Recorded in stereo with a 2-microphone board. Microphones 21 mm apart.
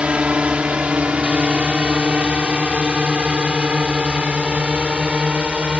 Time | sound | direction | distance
0.0 | a drone | 70° right (ahead or behind) | ?